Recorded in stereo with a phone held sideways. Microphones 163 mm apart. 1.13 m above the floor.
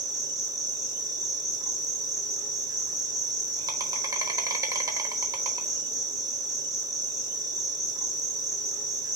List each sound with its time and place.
0.0 s an insect: 25° right (ahead or behind), 1.0 m